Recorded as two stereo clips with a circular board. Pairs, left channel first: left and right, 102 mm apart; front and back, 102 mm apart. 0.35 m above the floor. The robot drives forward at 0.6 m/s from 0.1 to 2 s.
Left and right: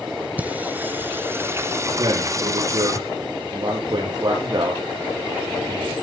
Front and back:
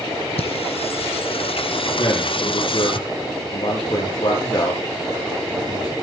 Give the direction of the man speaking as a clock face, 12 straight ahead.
1 o'clock.